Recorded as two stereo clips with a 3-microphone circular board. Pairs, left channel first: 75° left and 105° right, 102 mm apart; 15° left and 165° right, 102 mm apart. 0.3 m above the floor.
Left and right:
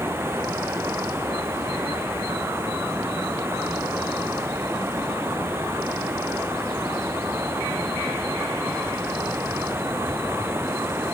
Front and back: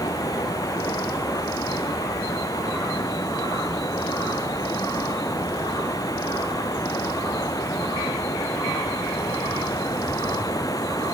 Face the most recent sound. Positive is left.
turn(degrees=-40)